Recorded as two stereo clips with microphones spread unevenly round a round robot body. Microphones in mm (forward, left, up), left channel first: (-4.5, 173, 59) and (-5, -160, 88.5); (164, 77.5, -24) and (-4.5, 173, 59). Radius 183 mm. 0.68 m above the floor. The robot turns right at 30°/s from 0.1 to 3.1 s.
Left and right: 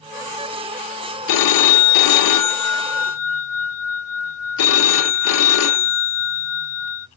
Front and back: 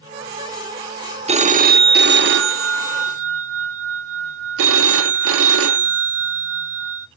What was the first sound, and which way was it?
A phone ringing, 75° left.